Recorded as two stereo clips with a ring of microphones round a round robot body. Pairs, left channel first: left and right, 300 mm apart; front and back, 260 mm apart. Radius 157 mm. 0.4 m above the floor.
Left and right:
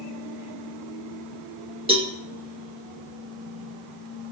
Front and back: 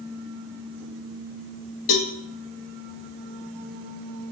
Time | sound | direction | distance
1.9 | a cowbell | 15° right | 2 m